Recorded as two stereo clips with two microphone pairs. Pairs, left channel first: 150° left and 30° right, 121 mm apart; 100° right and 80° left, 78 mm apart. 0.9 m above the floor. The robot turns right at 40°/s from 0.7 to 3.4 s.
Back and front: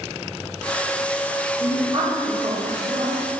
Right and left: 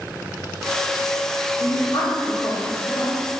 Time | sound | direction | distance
1.6 | a woman speaking | 90° right | 0.6 m